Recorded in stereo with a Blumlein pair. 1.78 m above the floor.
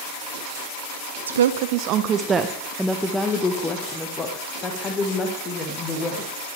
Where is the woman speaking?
70° right, 0.9 m; by 6.3 s 30° left, 3.5 m.